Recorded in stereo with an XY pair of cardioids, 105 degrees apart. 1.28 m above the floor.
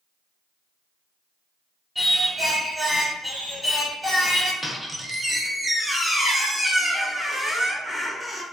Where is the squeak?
5° right, 0.6 m.